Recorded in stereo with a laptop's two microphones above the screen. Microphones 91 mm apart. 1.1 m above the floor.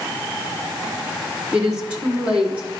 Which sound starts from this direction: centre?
A woman speaking, at 1.5 s.